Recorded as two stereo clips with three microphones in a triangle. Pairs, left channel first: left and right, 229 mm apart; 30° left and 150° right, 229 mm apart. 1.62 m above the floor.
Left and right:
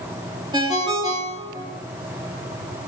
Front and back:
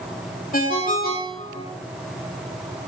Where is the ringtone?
20° right, 2 m.